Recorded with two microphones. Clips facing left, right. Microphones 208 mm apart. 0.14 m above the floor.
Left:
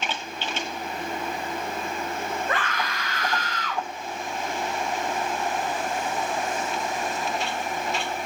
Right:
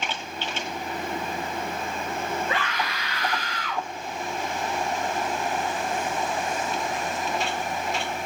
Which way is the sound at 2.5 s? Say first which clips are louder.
Even; 50° left (ahead or behind).